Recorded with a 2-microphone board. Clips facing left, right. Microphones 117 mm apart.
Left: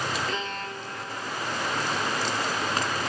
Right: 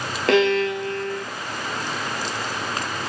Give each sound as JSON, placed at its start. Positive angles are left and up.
{"t": 0.3, "sound": "a violin", "side_deg": -85, "distance_m": 0.6}